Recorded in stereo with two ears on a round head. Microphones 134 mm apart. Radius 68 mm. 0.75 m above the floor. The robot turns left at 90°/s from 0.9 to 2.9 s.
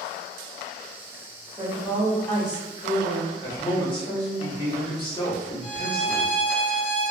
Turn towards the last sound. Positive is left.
turn(degrees=40)  # may be behind; listen again after turning